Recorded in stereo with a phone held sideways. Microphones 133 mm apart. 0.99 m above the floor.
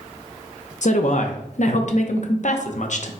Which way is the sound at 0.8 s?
60° left (ahead or behind).